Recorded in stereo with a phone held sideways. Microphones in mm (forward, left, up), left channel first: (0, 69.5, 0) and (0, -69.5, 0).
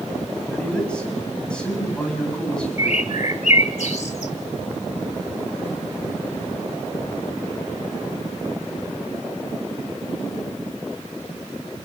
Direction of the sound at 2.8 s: 65° left (ahead or behind).